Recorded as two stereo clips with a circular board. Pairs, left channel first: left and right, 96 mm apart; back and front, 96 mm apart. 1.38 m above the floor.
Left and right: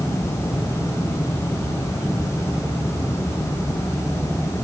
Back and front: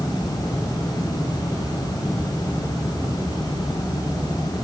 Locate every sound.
Only background noise.